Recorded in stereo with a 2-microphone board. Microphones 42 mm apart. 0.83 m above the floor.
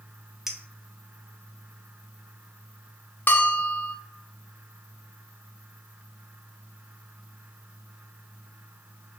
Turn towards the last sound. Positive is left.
turn(degrees=50)  # may be behind; listen again after turning